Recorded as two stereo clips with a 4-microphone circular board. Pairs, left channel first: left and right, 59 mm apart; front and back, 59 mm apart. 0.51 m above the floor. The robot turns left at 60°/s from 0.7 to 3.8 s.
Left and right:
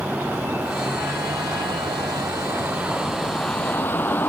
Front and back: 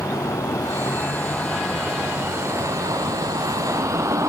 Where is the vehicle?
25° right; by 4.3 s 150° left.